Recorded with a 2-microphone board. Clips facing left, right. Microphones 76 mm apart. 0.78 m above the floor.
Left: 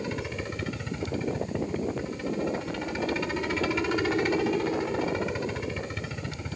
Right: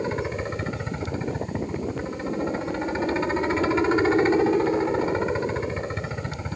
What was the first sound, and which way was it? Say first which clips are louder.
A helicopter: right 6 dB; 30° right (ahead or behind).